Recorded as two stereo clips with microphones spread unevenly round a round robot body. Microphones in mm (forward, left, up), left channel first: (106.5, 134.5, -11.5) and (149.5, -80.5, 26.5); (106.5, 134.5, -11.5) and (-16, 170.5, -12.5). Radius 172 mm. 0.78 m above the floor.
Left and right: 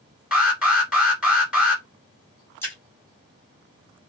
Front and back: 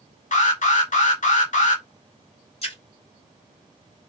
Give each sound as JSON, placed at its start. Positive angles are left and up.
{"t": 0.3, "sound": "an alarm", "azimuth_deg": 10, "distance_m": 2.0}
{"t": 2.6, "sound": "a splash", "azimuth_deg": 25, "distance_m": 2.5}